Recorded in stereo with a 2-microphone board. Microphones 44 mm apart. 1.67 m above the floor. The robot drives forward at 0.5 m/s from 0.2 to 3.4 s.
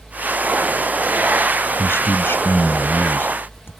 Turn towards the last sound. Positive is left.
turn(degrees=55)  # may be behind; listen again after turning